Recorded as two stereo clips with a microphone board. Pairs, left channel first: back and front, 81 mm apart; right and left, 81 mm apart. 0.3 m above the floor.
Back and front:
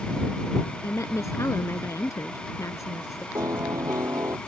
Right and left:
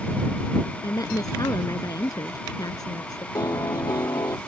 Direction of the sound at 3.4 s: 45° right.